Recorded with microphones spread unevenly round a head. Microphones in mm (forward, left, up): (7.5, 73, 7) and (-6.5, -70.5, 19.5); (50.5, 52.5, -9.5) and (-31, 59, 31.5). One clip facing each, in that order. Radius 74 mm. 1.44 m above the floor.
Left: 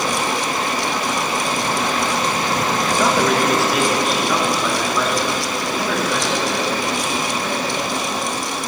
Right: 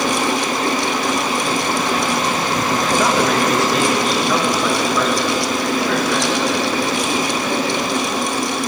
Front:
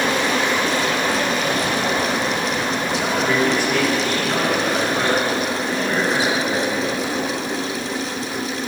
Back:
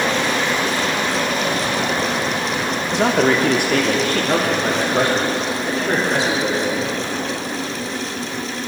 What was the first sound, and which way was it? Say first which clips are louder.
A man speaking: even, back 6 dB; 175° left.